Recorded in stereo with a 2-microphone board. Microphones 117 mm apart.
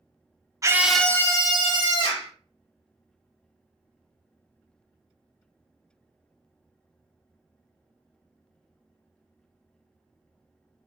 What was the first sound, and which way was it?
A scream, 30° right (ahead or behind).